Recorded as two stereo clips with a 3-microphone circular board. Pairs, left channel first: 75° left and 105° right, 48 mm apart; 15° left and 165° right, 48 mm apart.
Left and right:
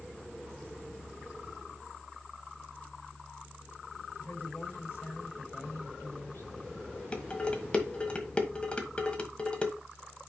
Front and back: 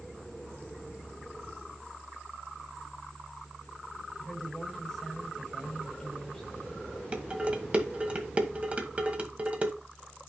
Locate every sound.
4.2 s a woman speaking: 100° left, 4.5 m
7.1 s dishes clattering: 135° left, 1.3 m